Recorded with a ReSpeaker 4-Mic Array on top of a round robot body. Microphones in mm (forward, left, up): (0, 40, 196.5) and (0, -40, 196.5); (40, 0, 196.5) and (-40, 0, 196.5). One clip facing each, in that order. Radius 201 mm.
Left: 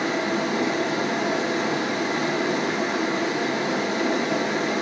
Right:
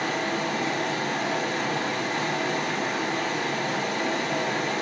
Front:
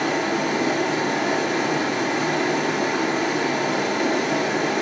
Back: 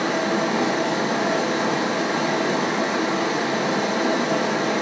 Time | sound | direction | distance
0.0 | running water | 155° left | 2.5 m